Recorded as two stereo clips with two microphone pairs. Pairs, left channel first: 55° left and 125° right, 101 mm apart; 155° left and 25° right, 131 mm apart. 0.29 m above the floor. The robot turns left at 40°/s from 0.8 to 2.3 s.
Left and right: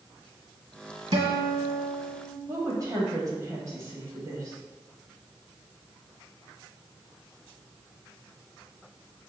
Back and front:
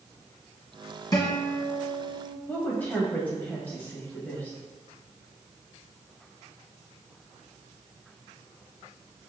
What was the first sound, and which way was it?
A guitar, 150° right.